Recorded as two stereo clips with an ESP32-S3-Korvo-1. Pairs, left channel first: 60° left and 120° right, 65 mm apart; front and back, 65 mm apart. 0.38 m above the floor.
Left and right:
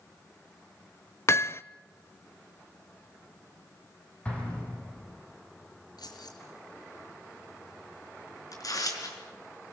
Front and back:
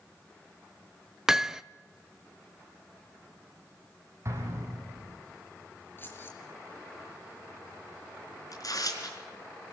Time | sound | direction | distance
1.3 | hammering | 100° left | 0.5 m
4.2 | an explosion | 130° left | 5 m
6.0 | keys jangling | 60° left | 4.5 m
8.5 | tearing paper | 30° left | 4.5 m